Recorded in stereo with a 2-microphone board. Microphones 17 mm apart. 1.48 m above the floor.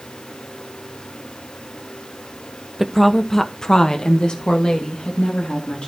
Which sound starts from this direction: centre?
A woman speaking, at 2.8 s.